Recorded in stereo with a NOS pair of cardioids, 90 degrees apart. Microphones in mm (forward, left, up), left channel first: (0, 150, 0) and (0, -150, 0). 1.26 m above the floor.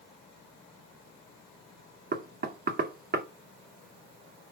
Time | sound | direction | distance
2.1 | knocking | 30° right | 2.5 m